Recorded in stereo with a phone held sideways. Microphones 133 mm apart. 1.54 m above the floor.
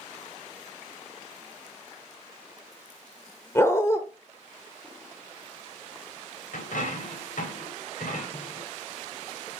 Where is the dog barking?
20° left (ahead or behind), 1.3 m.